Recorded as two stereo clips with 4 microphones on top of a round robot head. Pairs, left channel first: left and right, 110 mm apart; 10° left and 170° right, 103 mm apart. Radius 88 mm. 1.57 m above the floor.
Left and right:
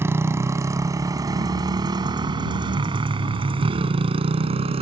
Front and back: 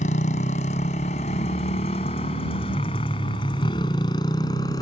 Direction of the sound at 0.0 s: 20° right.